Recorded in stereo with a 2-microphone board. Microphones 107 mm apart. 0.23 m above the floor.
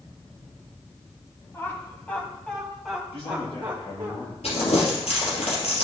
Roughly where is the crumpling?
Left.